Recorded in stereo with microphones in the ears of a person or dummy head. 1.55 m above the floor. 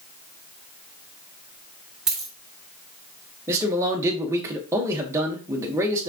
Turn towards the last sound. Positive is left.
turn(degrees=-15)  # may be behind; listen again after turning